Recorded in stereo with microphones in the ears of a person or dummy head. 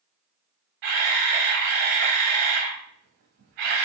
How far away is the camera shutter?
About 1.0 m.